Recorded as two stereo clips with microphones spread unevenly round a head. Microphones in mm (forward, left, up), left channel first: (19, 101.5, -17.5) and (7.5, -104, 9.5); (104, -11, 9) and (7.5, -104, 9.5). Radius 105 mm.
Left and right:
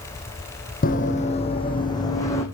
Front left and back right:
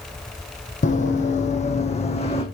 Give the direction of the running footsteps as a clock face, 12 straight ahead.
11 o'clock.